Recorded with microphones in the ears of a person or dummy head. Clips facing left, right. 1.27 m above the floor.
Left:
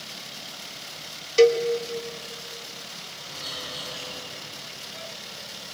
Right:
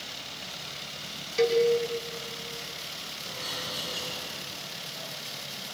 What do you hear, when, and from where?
1.4 s a cowbell: 45° left (ahead or behind), 1.8 m
3.2 s a bird: 80° right, 6 m